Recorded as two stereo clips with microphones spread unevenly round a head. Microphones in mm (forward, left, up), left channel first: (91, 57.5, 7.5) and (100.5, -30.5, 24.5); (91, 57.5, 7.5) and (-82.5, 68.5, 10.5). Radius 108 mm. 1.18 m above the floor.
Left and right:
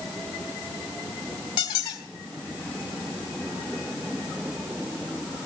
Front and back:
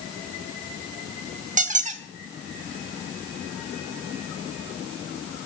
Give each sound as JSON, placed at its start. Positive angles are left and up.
{"t": 1.6, "sound": "a squeak", "azimuth_deg": 145, "distance_m": 1.2}